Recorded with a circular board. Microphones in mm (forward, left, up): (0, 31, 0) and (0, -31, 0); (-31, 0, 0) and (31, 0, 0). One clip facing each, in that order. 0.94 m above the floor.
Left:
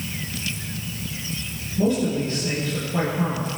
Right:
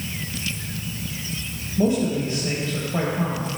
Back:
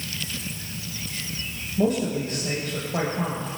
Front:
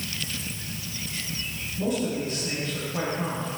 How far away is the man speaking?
About 4.5 m.